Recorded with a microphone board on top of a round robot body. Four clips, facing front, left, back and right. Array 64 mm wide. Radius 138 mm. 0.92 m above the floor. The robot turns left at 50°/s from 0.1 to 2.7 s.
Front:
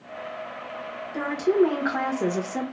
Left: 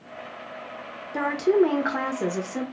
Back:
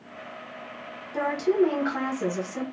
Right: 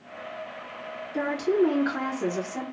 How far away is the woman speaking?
About 1.2 m.